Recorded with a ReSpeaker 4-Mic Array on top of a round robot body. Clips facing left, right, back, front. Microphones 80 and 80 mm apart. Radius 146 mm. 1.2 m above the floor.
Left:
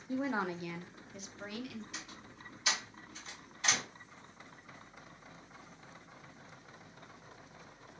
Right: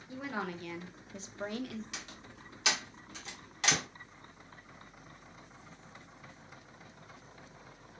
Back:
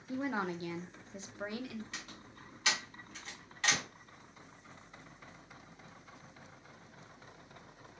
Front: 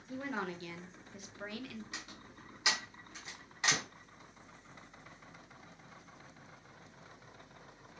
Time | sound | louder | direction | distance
0.1 | a woman speaking | left 4 dB, back 4 dB | 110° left | 0.6 m
1.9 | a door slam | right 1 dB, even | 75° right | 0.5 m